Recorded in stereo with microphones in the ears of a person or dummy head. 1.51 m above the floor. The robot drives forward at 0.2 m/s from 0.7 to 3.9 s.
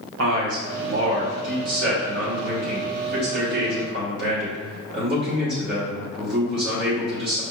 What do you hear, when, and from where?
0.2 s a man speaking: 75° right (ahead or behind), 1.2 m; by 7.4 s 50° right (ahead or behind), 1.5 m